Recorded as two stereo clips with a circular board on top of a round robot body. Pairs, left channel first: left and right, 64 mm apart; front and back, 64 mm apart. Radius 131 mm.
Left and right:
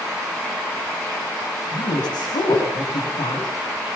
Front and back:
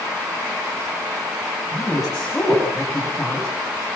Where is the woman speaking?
90° left, 8.5 m.